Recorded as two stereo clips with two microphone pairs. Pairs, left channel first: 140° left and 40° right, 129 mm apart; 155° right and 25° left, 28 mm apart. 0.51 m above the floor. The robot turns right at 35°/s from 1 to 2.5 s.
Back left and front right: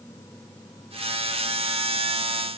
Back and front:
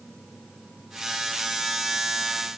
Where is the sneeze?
No sneeze in this recording.